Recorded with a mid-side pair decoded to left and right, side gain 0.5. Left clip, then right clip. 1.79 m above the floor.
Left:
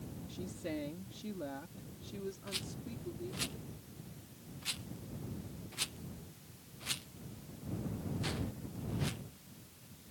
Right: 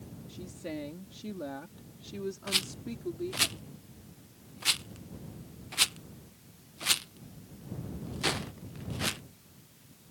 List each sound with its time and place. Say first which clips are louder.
0.3 s a woman speaking: right 2 dB; 10° right; by 3.5 s 55° right
2.5 s a rattle: right 11 dB; 65° right